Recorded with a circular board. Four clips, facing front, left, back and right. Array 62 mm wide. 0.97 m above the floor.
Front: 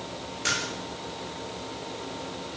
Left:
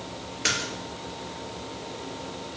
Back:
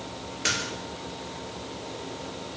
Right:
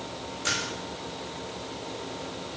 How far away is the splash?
About 5 m.